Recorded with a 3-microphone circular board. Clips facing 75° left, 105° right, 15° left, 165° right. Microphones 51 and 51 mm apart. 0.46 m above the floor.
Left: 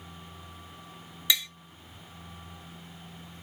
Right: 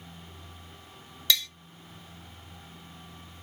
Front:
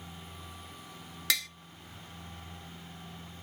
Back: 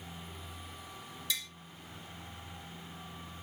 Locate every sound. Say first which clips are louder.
1.3 s tapping: right 1 dB, front 7 dB; straight ahead, 0.6 m